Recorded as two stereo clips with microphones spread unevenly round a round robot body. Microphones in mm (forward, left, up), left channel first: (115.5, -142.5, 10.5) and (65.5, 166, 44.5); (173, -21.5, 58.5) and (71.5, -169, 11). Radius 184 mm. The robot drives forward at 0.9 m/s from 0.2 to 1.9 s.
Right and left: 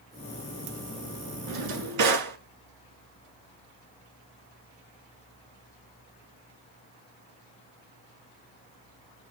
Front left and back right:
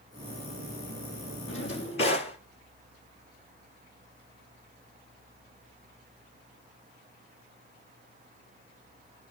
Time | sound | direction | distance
1.5 | a drawer | 105° left | 2 m